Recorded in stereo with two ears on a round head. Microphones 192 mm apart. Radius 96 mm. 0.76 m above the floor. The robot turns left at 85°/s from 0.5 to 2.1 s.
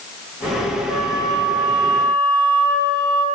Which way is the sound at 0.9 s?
80° right.